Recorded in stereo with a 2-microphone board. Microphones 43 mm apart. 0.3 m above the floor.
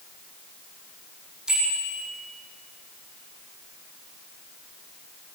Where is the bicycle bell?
15° right (ahead or behind), 9.5 m.